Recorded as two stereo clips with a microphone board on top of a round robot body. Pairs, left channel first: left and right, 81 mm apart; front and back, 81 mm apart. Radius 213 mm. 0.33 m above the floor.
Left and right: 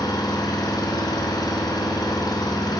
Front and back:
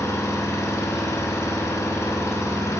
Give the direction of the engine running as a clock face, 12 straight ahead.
10 o'clock.